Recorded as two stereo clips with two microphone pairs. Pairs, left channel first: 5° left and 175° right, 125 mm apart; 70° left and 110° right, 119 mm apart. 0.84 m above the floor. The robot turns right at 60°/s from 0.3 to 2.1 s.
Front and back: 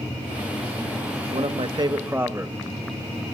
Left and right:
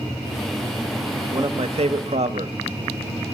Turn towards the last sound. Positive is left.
turn(degrees=-105)